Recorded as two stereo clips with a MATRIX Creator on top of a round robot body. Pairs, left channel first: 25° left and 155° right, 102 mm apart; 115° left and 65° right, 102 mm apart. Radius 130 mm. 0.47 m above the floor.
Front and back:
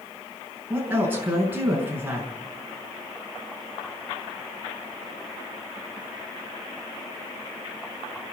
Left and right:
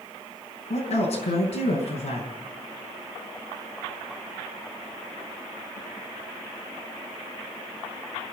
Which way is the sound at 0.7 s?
130° left.